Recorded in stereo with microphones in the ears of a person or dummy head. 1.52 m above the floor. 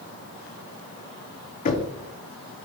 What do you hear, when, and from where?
1.6 s knocking: 35° left (ahead or behind), 1.0 m